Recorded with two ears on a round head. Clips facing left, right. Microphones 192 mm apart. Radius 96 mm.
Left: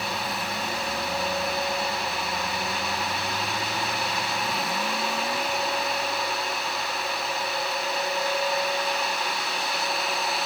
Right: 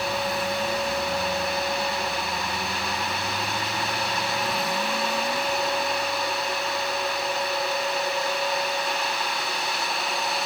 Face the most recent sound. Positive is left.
No sound to turn to.